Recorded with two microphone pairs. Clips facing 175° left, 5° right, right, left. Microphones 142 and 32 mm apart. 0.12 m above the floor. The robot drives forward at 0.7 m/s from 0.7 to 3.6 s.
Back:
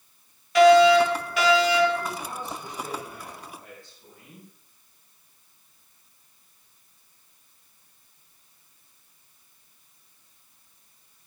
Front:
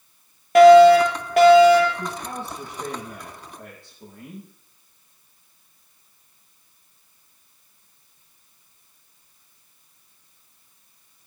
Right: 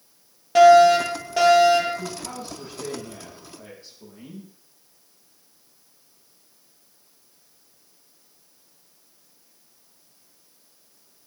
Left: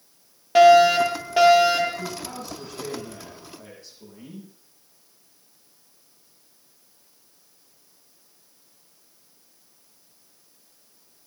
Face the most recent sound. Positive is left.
turn(degrees=-20)